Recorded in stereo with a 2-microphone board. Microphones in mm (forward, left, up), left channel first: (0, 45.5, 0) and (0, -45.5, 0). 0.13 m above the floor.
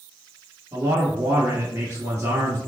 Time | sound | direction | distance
0.7 | a man speaking | 30° right (ahead or behind) | 1.8 m